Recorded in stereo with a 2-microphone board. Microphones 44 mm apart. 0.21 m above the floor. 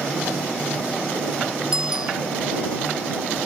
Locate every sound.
1.7 s a bicycle bell: 15° right (ahead or behind)